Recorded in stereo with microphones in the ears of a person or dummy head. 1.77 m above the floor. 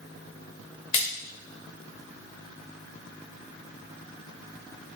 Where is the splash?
35° left (ahead or behind), 2 m.